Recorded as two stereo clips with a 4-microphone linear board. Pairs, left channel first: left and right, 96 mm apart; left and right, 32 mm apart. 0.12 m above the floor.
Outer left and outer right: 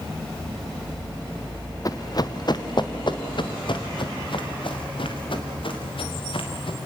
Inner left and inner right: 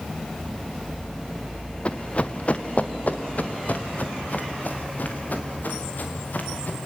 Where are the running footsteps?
40° left (ahead or behind), 1.0 m; by 6.8 s 65° left (ahead or behind), 4.5 m.